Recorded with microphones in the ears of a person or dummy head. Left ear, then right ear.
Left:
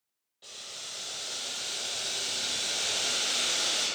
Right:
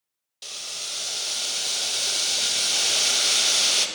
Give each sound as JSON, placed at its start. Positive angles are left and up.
{"t": 0.4, "sound": "boiling", "side_deg": -75, "distance_m": 0.6}